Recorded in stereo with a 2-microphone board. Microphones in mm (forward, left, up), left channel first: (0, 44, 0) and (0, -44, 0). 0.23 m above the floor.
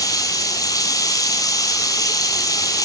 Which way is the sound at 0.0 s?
45° left (ahead or behind).